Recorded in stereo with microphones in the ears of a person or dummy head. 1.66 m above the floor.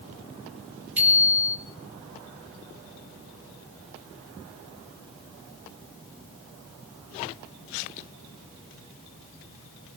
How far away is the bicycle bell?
About 6 m.